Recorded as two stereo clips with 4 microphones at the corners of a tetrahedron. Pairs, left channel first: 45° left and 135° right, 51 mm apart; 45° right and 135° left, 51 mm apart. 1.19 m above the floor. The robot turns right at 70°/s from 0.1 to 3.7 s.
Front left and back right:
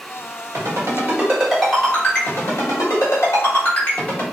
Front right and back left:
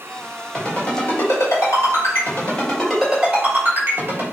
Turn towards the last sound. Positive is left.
turn(degrees=100)